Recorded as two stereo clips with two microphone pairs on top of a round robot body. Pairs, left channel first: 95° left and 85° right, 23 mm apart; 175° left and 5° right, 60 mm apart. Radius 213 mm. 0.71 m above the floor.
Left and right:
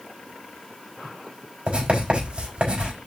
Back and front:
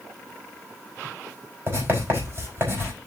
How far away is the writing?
About 5 m.